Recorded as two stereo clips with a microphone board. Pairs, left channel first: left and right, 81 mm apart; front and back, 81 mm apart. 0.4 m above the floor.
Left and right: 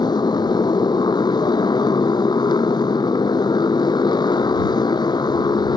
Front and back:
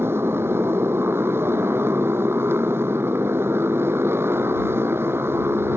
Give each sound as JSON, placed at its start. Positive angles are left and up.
{"t": 0.0, "sound": "a motorcycle", "azimuth_deg": 120}